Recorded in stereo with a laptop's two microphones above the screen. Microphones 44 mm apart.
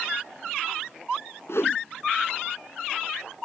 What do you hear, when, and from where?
1.5 s a whoosh: 70° left (ahead or behind)